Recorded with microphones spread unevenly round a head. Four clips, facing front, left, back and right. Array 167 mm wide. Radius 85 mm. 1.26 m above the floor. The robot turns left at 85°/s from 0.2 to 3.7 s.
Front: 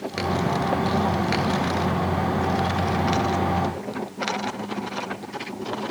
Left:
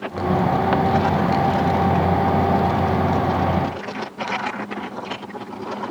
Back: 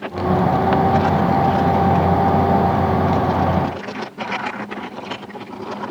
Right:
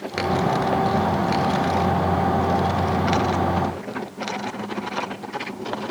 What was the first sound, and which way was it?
Only background noise.